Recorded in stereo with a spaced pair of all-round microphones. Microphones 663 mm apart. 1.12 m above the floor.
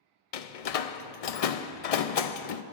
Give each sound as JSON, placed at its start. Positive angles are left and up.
{"t": 0.3, "sound": "a door slam", "side_deg": 65, "distance_m": 0.5}